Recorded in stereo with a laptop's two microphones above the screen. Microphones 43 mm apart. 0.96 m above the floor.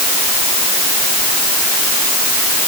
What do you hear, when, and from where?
Only background noise.